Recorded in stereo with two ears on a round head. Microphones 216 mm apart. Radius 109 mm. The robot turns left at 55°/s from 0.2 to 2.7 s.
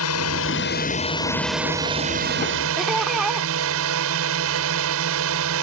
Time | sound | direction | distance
0.0 | a drone | 70° left | ?
2.8 | laughter | centre (ahead or behind) | ?